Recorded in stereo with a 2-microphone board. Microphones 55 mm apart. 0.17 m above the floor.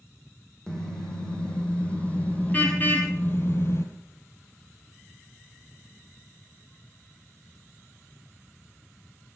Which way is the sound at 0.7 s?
15° left (ahead or behind).